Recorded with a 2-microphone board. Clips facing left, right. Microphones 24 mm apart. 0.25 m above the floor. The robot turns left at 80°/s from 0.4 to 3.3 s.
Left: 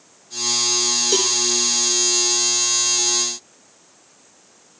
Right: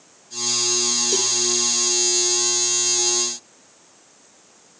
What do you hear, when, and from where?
1.1 s a cowbell: 35° left (ahead or behind); by 1.4 s 15° left (ahead or behind)